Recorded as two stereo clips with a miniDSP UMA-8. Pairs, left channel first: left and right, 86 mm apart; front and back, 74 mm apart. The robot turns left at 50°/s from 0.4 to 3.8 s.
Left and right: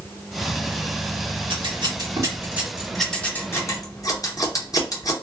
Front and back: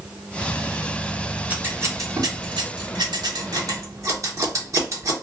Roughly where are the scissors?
Right.